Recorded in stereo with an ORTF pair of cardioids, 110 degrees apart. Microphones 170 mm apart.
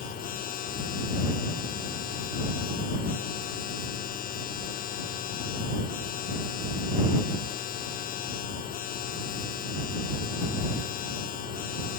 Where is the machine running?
55° left.